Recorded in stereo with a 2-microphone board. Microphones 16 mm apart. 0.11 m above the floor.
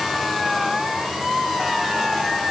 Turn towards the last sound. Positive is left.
No sound to turn to.